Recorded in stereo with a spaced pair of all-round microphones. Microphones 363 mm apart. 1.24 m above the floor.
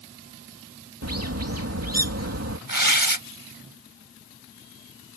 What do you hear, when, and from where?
1.0 s a bird: 45° right (ahead or behind)
2.7 s tearing paper: 65° right (ahead or behind)